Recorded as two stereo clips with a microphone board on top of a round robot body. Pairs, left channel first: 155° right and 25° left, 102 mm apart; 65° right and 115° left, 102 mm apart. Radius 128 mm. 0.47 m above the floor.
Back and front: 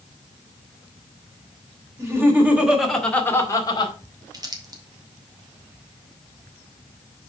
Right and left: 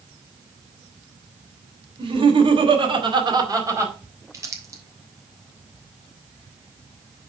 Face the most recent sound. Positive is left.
turn(degrees=60)